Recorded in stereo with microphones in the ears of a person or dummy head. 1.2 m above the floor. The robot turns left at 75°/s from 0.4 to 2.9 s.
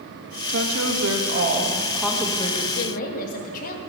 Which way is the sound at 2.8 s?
60° left (ahead or behind).